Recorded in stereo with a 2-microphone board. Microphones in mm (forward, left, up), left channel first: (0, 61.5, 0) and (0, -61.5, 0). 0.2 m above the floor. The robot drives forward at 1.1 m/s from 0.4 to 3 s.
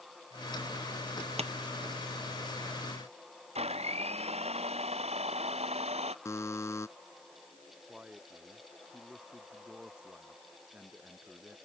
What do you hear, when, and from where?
1.4 s tapping: 55° right (ahead or behind)
3.5 s a blender: 55° right (ahead or behind)
6.2 s a buzzer: 25° left (ahead or behind)
7.9 s a man speaking: 5° right (ahead or behind)